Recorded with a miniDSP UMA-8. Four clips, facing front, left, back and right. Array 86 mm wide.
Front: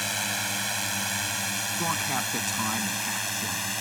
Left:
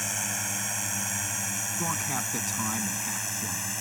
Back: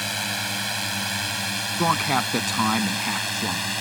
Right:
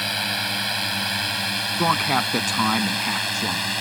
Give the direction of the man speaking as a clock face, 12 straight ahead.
4 o'clock.